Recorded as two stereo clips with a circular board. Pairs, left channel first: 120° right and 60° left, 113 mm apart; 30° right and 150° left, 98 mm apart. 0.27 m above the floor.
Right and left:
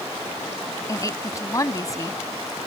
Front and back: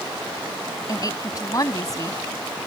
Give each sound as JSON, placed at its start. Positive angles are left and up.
{"t": 0.9, "sound": "a woman speaking", "azimuth_deg": -70}